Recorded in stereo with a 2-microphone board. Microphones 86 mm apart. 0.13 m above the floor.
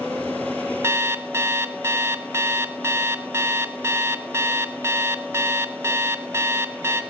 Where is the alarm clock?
30° right (ahead or behind), 0.6 m.